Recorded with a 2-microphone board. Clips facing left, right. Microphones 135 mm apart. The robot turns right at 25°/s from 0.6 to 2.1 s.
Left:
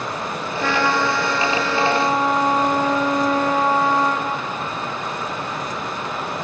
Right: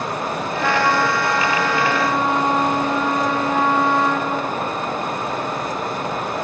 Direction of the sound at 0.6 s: Straight ahead.